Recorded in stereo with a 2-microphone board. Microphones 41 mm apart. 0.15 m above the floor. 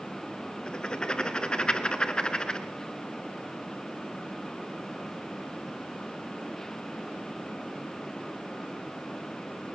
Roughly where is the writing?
Left.